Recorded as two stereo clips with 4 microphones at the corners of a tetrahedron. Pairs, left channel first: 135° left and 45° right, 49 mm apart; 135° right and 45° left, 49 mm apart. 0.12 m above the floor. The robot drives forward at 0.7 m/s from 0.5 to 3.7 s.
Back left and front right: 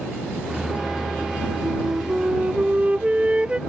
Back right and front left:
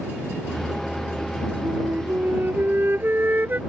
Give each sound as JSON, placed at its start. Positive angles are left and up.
{"t": 1.6, "sound": "a flute", "azimuth_deg": 10}